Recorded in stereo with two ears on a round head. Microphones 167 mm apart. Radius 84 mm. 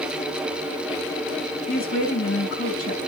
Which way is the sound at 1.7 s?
50° left (ahead or behind).